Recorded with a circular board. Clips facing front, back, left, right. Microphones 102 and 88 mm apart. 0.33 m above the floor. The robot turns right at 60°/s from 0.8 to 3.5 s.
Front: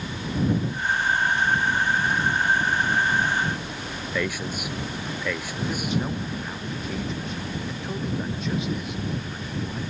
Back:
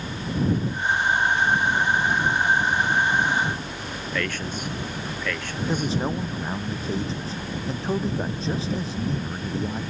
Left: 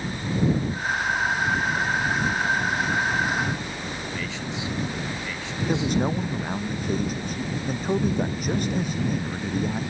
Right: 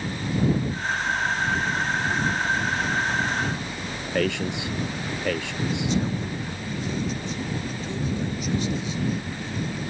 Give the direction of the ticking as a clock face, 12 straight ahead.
No ticking in this recording.